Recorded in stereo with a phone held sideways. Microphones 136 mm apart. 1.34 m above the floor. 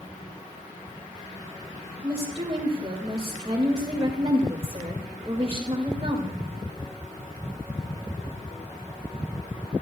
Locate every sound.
2.0 s a woman speaking: 40° right (ahead or behind), 2.5 m